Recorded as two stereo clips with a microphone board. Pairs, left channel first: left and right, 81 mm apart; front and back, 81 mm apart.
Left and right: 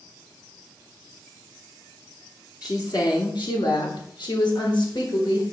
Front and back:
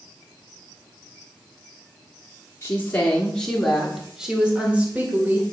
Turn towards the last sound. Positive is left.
turn(degrees=115)